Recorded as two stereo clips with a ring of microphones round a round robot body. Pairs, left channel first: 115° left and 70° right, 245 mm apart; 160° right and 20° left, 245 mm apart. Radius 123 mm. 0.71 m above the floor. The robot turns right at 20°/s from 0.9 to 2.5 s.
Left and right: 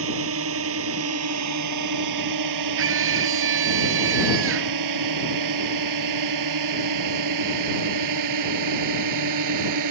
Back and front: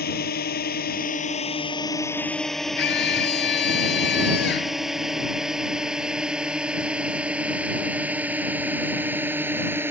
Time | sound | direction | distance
0.0 | a drone | 105° right | ?
2.8 | a scream | 105° right | ?